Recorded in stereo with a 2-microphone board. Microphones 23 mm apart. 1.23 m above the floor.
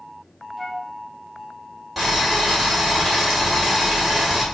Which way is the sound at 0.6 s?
5° left (ahead or behind).